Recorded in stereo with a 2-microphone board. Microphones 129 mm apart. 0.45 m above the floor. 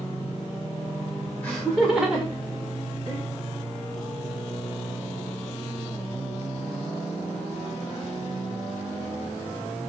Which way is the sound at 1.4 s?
10° left (ahead or behind).